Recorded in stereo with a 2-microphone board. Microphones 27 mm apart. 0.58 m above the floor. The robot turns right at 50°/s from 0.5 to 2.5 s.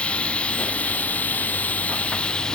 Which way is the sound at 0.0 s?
45° left.